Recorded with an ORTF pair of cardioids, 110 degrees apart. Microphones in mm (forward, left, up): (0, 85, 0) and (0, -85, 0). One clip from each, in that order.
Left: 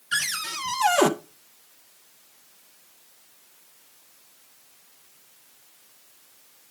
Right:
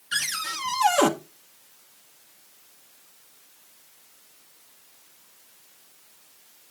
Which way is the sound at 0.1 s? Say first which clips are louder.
Left 1 dB; 10° left.